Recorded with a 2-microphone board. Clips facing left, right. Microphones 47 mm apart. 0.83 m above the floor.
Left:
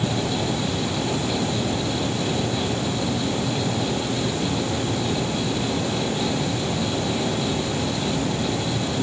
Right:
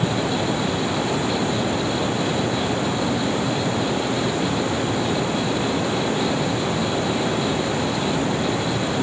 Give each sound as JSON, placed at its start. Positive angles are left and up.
{"t": 0.0, "sound": "running water", "side_deg": -30}